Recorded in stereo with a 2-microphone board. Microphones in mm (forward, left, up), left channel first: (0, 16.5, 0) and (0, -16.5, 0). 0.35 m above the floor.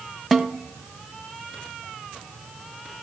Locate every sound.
0.3 s a snare drum: 5° left (ahead or behind), 0.7 m